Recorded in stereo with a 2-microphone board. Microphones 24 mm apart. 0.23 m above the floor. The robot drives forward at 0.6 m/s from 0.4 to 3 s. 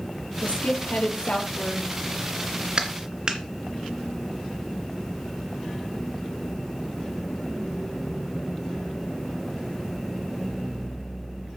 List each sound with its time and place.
0.4 s a woman speaking: 70° left (ahead or behind), 6 m; by 1.9 s 65° left (ahead or behind), 6.5 m
2.8 s a clap: 40° right (ahead or behind), 2 m; by 3.4 s 35° right (ahead or behind), 2 m